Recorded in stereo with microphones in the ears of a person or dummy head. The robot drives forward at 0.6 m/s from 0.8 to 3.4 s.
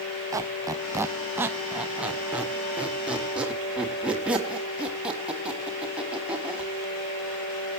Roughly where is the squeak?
Centre.